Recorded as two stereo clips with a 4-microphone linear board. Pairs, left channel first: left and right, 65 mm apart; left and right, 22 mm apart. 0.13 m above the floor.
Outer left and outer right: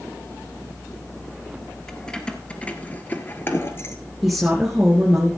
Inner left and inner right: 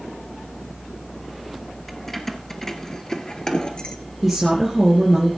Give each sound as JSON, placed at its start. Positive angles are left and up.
{"t": 1.9, "sound": "keys jangling", "side_deg": 10, "distance_m": 1.8}
{"t": 4.2, "sound": "a woman speaking", "side_deg": -5, "distance_m": 2.5}